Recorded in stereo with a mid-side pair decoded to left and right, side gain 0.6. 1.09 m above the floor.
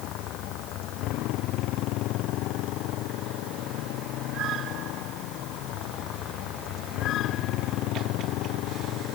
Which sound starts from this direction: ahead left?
A motorcycle, at 0.0 s.